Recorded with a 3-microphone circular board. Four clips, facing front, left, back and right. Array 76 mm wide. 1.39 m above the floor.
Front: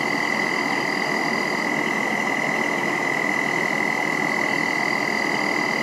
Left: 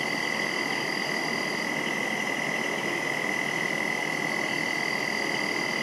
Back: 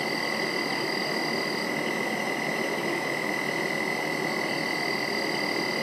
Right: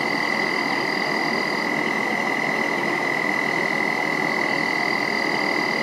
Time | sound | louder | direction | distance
0.0 | an insect | right 7 dB, front 6 dB | 50° right | 2.5 m